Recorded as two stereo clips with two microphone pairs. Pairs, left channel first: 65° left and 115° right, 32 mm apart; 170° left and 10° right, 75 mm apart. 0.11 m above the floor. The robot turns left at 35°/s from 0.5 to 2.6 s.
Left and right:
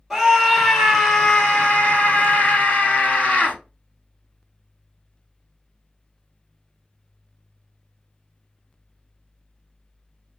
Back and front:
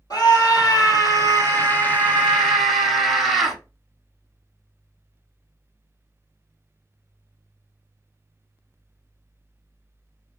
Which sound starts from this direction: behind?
A scream, at 0.1 s.